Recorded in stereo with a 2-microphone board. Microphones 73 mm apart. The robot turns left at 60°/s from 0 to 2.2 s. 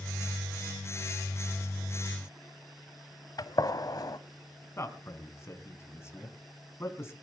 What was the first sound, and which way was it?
A gunshot, 60° left (ahead or behind).